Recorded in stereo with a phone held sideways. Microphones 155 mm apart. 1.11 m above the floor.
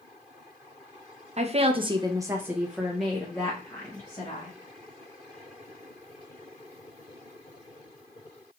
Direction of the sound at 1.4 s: 45° right (ahead or behind).